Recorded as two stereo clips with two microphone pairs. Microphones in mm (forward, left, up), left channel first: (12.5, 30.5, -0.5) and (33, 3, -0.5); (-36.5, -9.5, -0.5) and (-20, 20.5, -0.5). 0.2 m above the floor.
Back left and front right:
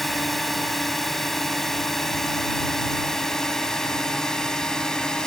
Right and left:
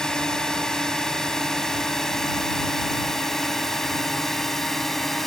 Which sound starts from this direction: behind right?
A drone, at 0.0 s.